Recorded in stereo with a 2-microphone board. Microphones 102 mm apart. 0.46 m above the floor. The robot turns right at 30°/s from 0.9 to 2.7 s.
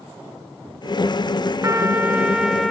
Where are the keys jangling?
I don't hear keys jangling.